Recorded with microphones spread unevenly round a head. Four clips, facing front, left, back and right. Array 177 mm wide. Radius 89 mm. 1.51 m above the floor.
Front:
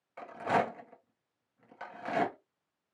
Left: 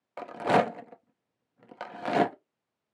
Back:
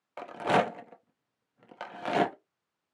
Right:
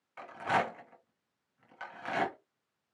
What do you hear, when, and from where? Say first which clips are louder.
0.2 s a rattle: left 7 dB, back 4 dB; 120° left, 0.6 m